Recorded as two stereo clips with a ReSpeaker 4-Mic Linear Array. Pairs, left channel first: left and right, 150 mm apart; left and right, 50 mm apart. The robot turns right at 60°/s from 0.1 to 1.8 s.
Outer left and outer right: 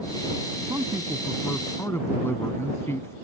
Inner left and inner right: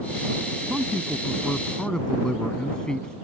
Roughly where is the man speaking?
Ahead right.